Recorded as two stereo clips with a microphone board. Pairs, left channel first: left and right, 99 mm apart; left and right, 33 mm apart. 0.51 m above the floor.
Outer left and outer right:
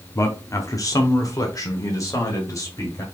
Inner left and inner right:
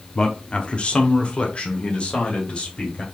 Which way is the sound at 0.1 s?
30° left (ahead or behind).